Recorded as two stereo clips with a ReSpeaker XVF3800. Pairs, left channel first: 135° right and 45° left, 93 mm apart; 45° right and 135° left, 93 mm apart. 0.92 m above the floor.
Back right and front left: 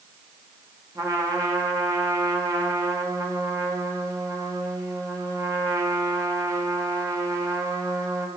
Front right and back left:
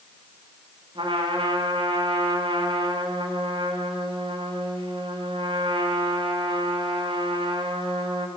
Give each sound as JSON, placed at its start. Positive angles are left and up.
{"t": 0.9, "sound": "a trumpet", "azimuth_deg": 100, "distance_m": 5.5}